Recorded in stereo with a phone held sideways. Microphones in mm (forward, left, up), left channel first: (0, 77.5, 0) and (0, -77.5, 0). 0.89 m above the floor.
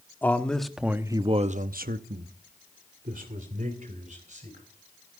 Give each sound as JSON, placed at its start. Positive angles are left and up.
{"t": 0.2, "sound": "a man speaking", "side_deg": 10, "distance_m": 1.7}